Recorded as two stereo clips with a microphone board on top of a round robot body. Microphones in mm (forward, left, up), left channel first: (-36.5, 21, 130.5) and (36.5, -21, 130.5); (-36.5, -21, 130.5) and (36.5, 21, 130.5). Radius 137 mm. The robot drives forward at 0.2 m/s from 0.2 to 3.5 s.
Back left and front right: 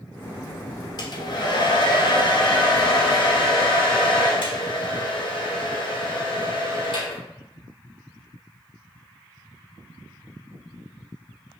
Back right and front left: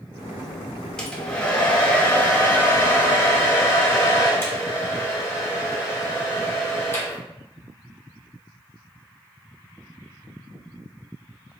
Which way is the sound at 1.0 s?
130° left.